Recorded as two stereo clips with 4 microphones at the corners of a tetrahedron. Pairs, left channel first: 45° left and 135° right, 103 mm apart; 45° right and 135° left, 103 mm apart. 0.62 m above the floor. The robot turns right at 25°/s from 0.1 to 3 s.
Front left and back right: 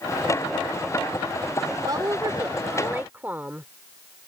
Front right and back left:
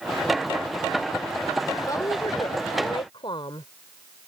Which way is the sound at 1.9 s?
95° right.